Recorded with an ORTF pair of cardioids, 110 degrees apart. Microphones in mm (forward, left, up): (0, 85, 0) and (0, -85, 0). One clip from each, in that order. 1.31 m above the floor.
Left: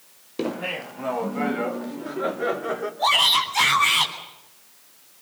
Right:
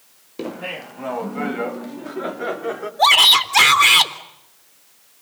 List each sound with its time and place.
0.4 s laughter: 10° left, 0.6 m; by 2.9 s 15° right, 3.5 m
3.0 s a shout: 70° right, 3.5 m